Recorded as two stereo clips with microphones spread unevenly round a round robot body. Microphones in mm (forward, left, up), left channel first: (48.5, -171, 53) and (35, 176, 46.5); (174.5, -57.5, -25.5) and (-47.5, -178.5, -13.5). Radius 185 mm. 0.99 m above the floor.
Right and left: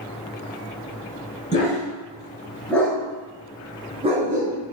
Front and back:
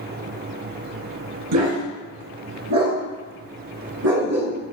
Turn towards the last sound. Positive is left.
turn(degrees=160)